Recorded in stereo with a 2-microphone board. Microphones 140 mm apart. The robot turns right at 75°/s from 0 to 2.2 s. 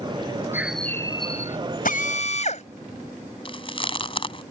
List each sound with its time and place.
0.5 s a bird: 15° right; by 1.6 s 60° left
1.9 s a drill: 80° left; by 2.6 s 55° left (ahead or behind)
3.5 s chewing: 40° left (ahead or behind)